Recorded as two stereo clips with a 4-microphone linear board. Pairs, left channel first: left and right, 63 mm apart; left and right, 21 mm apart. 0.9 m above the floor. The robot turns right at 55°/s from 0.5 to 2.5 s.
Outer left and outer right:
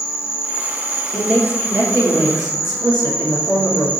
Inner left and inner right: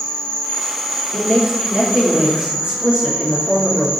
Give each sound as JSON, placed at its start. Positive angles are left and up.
{"t": 0.0, "sound": "an insect", "azimuth_deg": 140, "distance_m": 2.5}
{"t": 1.1, "sound": "a man speaking", "azimuth_deg": 180, "distance_m": 1.9}